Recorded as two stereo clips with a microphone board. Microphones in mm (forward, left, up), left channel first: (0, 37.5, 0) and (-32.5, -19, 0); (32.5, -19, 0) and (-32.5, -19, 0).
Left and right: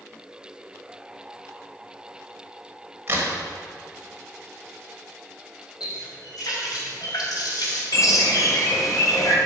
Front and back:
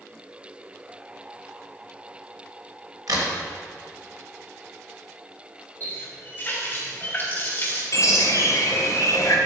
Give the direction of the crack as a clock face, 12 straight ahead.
6 o'clock.